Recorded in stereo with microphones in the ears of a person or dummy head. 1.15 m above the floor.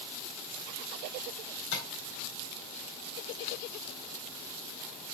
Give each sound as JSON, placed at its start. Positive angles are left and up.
{"t": 1.7, "sound": "tapping", "side_deg": 85, "distance_m": 3.5}